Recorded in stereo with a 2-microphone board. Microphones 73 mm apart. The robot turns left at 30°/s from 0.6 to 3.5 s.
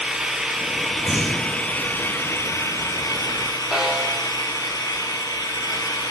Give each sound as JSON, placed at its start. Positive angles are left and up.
{"t": 0.0, "sound": "an engine running", "azimuth_deg": -170, "distance_m": 3.0}
{"t": 1.0, "sound": "breathing", "side_deg": -45, "distance_m": 3.5}
{"t": 3.7, "sound": "a snare drum", "side_deg": -5, "distance_m": 7.5}